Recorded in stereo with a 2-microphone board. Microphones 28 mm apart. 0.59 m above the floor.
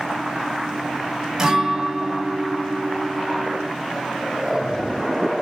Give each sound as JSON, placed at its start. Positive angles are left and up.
{"t": 1.4, "sound": "a guitar", "side_deg": -20, "distance_m": 0.8}